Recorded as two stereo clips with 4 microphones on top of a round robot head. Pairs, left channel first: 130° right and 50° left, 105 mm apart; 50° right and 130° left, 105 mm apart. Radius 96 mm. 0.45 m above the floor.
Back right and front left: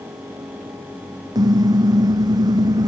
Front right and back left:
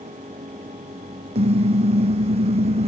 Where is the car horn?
105° left; by 2.9 s 100° left.